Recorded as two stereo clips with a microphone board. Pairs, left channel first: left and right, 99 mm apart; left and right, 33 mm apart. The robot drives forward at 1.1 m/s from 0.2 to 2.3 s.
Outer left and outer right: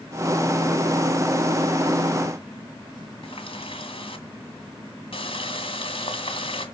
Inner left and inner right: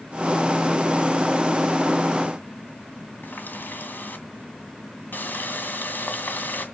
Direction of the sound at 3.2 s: 70° left (ahead or behind).